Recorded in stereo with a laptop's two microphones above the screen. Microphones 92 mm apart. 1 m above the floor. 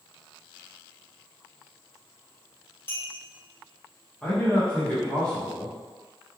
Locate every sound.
2.9 s a clink: 20° left (ahead or behind), 1.9 m
4.2 s a man speaking: 10° left (ahead or behind), 0.8 m